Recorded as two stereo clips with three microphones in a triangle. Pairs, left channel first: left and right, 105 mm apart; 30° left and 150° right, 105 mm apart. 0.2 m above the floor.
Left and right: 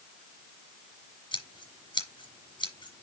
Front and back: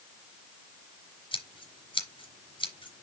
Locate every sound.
1.3 s scissors: 55° left, 3 m